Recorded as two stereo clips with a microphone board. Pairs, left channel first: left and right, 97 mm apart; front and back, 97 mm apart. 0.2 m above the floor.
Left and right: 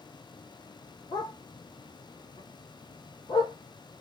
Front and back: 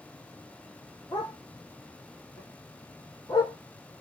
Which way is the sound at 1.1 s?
45° left.